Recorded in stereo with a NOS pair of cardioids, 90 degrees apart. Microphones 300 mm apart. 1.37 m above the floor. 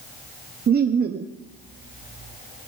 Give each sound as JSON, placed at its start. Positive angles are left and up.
{"t": 0.7, "sound": "laughter", "azimuth_deg": -35, "distance_m": 0.6}